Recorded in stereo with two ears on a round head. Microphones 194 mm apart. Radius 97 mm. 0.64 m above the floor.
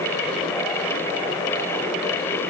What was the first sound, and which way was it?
Only background noise.